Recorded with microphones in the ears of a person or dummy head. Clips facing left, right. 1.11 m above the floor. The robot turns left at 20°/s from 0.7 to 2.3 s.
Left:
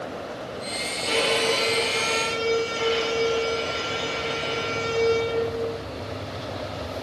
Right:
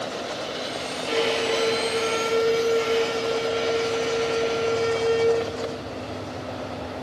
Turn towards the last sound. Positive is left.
turn(degrees=45)  # may be behind; listen again after turning